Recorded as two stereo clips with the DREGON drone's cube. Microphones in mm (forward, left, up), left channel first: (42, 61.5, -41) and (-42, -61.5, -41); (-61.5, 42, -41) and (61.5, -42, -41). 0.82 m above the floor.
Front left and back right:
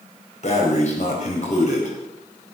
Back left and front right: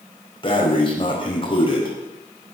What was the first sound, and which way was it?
Breathing, 90° left.